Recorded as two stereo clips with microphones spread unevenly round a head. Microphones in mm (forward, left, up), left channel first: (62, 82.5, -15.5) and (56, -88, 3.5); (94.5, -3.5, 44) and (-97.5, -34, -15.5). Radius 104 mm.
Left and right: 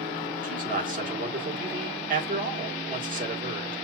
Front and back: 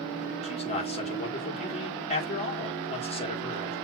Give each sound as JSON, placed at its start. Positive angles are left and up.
{"t": 0.4, "sound": "a man speaking", "azimuth_deg": -50, "distance_m": 1.9}